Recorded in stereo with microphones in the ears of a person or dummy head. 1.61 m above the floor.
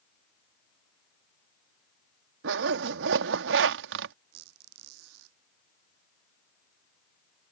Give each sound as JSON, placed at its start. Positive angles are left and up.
{"t": 2.4, "sound": "a zipper", "side_deg": -65}
{"t": 4.3, "sound": "a squeak", "side_deg": -85}